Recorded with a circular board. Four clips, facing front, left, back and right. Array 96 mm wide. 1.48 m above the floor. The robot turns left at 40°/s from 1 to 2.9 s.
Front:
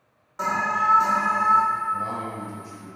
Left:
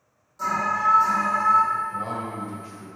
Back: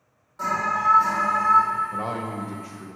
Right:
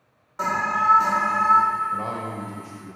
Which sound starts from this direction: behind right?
A man speaking, at 1.9 s.